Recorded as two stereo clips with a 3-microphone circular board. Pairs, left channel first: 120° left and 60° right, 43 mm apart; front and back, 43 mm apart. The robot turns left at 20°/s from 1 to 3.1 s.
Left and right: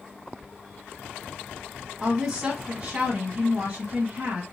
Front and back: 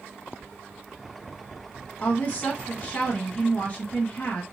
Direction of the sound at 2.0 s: 5° left.